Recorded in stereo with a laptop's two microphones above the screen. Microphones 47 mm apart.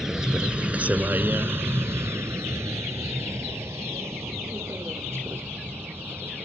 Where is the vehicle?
10° right (ahead or behind); by 6.5 s 65° right (ahead or behind).